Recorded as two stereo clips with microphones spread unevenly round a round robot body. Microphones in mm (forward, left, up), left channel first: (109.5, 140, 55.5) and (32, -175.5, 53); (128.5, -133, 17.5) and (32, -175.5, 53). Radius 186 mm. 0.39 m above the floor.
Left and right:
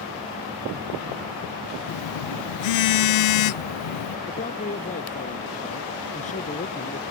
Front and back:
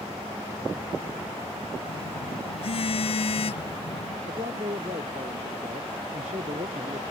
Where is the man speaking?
145° left.